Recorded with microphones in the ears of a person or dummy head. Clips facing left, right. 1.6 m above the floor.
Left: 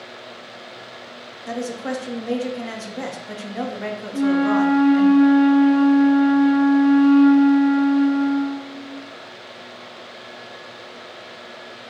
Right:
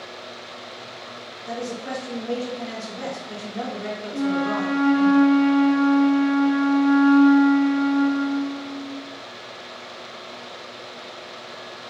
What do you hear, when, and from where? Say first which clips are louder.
1.5 s a woman speaking: left 3 dB; 70° left (ahead or behind), 0.7 m
4.1 s a flute: left 6 dB; 55° left (ahead or behind), 1.2 m